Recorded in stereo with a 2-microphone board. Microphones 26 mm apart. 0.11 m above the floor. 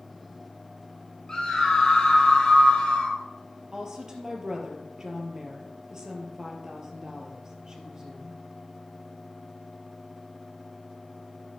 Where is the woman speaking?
25° right (ahead or behind), 2.5 m.